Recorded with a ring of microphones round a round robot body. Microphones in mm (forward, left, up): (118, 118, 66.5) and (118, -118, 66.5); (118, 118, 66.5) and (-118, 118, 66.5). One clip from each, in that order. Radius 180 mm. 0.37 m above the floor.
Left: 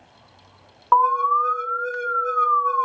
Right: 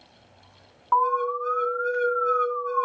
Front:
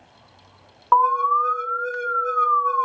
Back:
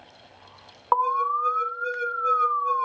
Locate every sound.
0.9 s an alarm: 120° left, 1.2 m